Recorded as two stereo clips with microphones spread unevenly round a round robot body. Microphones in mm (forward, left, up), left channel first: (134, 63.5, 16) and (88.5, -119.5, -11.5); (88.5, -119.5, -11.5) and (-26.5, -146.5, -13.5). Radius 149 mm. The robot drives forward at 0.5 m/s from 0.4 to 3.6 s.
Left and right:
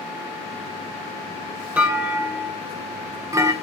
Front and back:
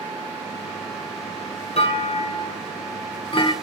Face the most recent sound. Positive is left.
turn(degrees=-30)